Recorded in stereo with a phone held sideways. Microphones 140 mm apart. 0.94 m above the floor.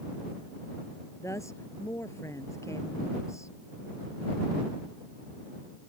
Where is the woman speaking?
20° left (ahead or behind).